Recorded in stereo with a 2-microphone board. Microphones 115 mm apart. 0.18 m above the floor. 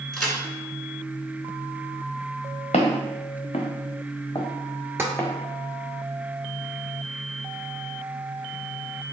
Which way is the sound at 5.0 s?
20° right (ahead or behind).